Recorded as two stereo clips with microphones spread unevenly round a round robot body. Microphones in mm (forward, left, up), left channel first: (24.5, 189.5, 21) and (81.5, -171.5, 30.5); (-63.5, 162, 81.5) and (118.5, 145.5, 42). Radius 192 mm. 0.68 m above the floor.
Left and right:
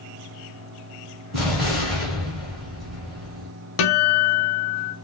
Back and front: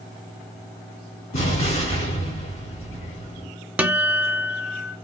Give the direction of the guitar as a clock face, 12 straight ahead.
9 o'clock.